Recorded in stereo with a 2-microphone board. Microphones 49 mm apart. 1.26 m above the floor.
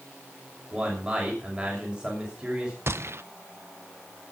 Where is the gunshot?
60° right (ahead or behind), 0.8 m.